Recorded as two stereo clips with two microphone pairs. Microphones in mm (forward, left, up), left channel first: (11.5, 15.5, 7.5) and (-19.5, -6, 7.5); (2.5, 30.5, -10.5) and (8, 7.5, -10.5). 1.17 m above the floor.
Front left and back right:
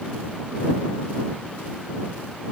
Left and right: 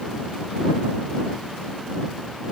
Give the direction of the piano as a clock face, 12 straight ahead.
No piano in this recording.